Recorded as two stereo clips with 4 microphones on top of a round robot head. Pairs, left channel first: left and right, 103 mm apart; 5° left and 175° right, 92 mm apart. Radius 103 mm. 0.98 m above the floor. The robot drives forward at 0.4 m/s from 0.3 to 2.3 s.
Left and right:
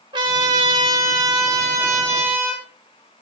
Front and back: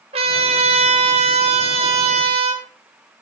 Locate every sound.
0.1 s a trumpet: 145° right, 1.3 m; by 2.6 s 160° right, 2.0 m